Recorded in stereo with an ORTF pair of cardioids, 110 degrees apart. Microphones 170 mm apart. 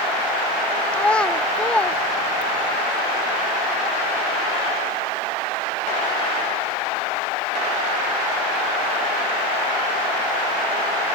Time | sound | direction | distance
0.9 | a child speaking | 5° left | ?